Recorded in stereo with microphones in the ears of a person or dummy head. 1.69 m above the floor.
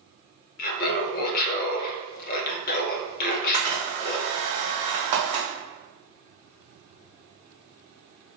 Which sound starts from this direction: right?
A camera shutter, at 3.3 s.